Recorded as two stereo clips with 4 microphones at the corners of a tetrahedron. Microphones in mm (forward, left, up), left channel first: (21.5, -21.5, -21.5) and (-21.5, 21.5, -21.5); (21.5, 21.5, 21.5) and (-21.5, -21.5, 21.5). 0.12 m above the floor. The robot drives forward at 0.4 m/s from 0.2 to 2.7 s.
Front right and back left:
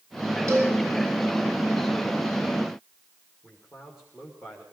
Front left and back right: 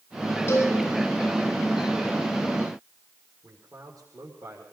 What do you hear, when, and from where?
0.5 s a cowbell: 95° left, 8.5 m
3.4 s a man speaking: 150° right, 6 m